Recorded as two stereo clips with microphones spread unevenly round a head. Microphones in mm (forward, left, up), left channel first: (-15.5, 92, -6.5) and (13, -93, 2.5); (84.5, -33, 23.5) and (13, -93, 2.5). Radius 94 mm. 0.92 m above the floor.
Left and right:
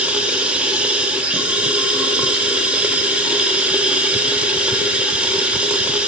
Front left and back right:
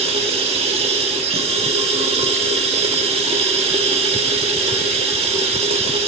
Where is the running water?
165° right, 1.0 m.